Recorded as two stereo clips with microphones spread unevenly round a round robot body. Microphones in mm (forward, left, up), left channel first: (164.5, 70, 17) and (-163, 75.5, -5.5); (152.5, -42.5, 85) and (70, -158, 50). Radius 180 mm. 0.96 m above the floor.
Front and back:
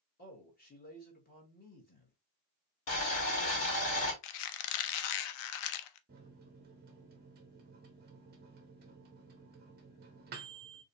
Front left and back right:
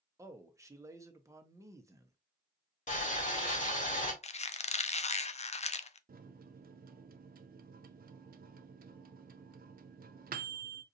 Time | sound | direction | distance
0.2 | a man speaking | 65° right | 1.1 m
2.9 | boiling | 30° left | 2.0 m
4.2 | a squeak | straight ahead | 0.5 m
6.1 | a microwave | 115° right | 0.5 m